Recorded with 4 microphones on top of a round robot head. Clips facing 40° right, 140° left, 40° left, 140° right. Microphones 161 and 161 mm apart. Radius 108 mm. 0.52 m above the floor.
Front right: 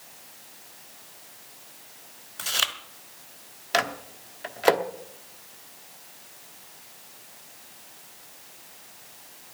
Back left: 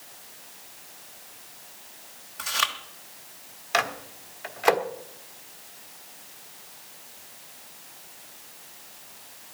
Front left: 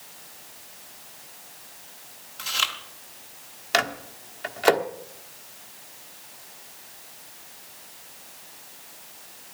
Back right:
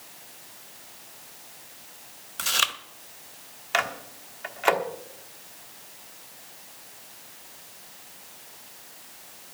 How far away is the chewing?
About 1.0 m.